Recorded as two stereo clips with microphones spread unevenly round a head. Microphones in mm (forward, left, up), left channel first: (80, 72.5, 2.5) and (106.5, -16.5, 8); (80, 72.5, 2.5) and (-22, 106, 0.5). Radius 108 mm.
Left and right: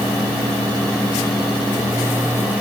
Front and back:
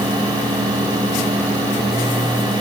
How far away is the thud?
I don't hear a thud.